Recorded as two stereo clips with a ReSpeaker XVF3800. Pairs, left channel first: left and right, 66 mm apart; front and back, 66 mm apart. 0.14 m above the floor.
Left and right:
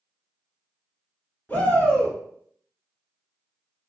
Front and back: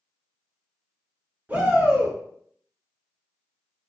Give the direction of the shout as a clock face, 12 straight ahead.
8 o'clock.